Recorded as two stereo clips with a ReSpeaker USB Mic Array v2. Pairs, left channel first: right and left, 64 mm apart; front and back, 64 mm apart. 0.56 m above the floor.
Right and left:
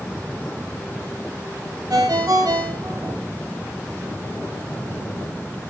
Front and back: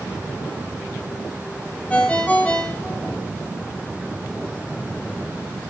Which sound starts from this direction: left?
A ringtone, at 1.9 s.